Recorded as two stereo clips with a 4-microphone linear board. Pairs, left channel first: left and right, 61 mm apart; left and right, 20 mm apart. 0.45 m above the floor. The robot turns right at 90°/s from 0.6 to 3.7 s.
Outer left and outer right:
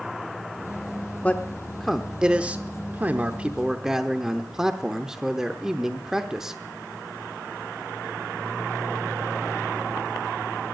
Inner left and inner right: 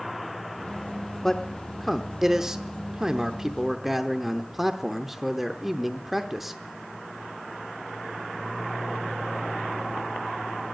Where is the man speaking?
25° left (ahead or behind), 0.8 m; by 6.6 s 5° right (ahead or behind), 0.8 m.